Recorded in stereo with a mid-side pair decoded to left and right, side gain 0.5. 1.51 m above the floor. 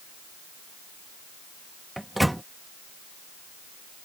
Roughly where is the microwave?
Ahead.